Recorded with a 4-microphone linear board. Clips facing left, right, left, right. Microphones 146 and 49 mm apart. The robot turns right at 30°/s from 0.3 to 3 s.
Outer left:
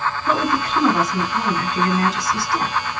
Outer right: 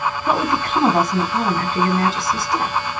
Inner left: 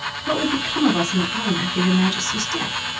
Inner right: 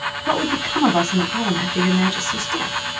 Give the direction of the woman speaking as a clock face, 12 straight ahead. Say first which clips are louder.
Even, inner right 1 dB; 3 o'clock.